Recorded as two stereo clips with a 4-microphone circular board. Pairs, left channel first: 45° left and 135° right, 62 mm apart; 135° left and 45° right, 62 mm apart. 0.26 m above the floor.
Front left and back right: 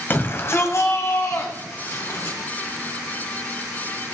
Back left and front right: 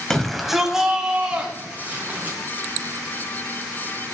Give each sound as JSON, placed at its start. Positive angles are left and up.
{"t": 0.1, "sound": "a shout", "azimuth_deg": 60, "distance_m": 1.6}